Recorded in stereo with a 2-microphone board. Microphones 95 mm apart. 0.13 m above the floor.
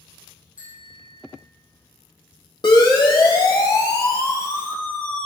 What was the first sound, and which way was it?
A bicycle bell, 15° right (ahead or behind).